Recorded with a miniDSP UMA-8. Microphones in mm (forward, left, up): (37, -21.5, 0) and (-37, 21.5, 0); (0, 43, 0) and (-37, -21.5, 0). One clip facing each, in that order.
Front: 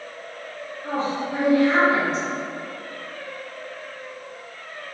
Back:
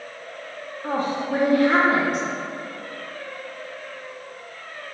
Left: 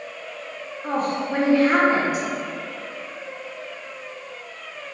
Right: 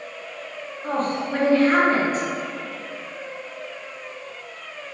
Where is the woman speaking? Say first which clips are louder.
Back 1 dB, even; 135° left, 0.7 m.